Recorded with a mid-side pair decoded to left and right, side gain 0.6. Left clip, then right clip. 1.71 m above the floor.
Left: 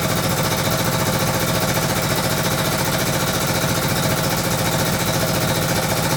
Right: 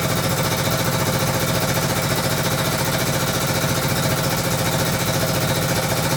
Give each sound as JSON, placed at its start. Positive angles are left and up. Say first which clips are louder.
{"t": 0.0, "sound": "a machine running", "louder": "left 1 dB", "azimuth_deg": 5, "distance_m": 0.7}